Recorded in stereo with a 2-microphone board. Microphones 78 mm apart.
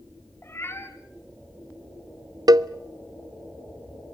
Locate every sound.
0.4 s a cat meowing: 30° left (ahead or behind), 2 m
2.5 s a cowbell: 55° right (ahead or behind), 0.5 m